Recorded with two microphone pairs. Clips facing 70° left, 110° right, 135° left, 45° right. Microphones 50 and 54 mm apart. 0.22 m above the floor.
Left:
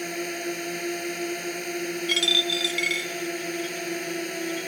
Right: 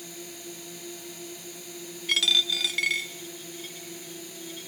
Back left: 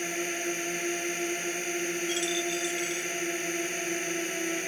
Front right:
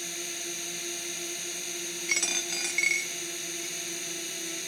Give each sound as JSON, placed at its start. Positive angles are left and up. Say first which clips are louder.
{"t": 0.0, "sound": "a drone", "louder": "left 12 dB, back left 8 dB", "azimuth_deg": 85}
{"t": 2.1, "sound": "a dropped coin", "louder": "even, back left 2 dB", "azimuth_deg": -15}